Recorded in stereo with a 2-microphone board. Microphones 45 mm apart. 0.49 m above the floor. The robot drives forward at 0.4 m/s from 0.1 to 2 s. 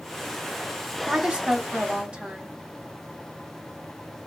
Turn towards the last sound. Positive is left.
turn(degrees=-25)  # may be behind; listen again after turning